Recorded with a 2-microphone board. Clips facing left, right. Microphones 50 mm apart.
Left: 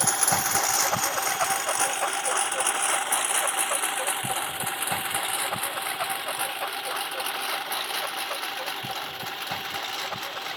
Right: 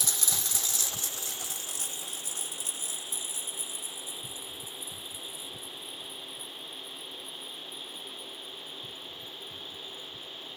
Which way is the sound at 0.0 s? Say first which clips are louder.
Left 11 dB; 50° left (ahead or behind).